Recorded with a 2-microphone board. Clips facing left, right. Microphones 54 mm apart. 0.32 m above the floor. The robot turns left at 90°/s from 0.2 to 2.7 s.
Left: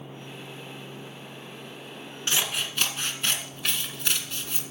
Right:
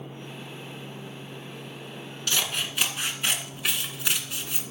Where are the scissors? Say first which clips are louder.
Even; 30° left, 1.7 m; by 4.6 s 10° right, 1.7 m.